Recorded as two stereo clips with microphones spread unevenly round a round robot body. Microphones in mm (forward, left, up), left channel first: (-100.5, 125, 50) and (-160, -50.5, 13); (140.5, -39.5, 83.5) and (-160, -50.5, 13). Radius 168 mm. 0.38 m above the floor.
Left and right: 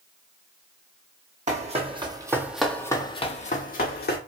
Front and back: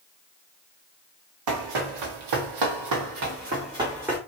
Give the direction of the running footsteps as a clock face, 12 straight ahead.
6 o'clock.